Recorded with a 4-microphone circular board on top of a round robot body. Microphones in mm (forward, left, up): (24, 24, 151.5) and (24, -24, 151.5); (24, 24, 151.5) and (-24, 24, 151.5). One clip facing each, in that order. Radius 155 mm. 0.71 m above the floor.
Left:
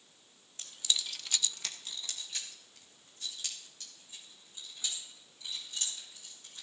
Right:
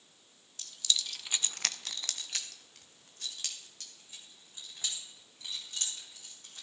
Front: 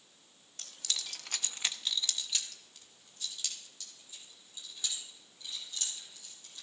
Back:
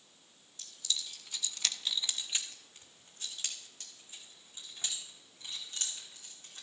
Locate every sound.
0.6 s keys jangling: 25° left, 1.2 m; by 6.6 s 130° right, 6.5 m